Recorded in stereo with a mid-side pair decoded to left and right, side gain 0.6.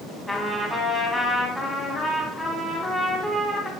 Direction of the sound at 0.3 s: 5° left.